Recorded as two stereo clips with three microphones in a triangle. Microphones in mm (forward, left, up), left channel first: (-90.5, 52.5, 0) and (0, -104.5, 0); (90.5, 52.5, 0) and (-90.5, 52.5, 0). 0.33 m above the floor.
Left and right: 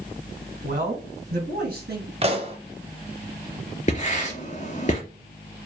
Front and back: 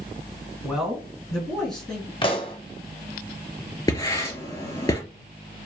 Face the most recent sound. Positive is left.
turn(degrees=70)